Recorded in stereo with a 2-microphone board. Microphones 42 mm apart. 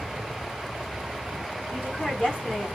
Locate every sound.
1.7 s a woman speaking: 40° left (ahead or behind), 1.7 m